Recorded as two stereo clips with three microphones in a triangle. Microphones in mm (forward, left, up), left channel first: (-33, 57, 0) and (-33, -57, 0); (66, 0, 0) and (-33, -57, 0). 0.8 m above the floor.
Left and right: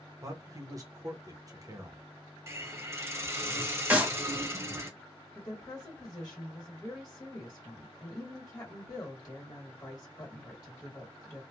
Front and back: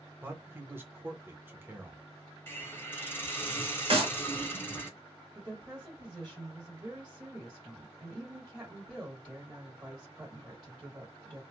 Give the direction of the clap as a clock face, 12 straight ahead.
5 o'clock.